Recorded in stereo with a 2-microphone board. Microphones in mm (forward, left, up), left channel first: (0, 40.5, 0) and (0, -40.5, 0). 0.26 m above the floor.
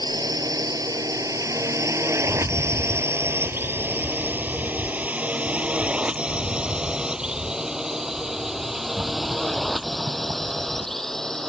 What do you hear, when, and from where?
0.0 s a drone: 50° right (ahead or behind); by 11.5 s 5° left (ahead or behind)
2.2 s a rattle: 45° right (ahead or behind)